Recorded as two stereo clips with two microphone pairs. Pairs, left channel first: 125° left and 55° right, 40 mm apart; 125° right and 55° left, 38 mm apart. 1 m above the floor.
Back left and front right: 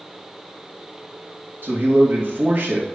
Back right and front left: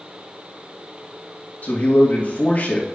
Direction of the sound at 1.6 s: 80° right.